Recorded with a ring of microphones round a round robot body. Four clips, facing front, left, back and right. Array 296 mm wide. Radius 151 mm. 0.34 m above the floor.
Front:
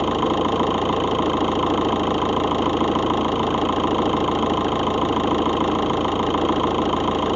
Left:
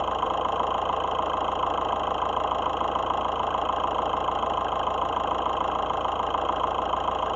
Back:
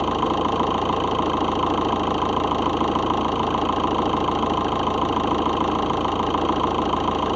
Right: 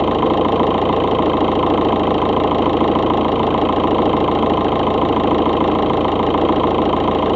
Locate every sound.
0.0 s an engine running: 80° right